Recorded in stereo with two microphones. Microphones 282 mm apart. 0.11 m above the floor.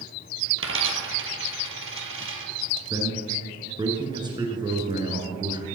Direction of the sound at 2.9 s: 15° right (ahead or behind).